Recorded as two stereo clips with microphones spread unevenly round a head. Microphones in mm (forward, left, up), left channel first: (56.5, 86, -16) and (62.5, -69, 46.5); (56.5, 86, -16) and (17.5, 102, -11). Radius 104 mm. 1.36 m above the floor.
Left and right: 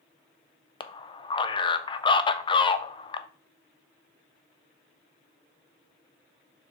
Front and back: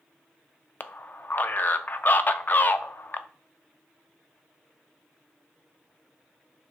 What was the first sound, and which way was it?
A man speaking, 30° left.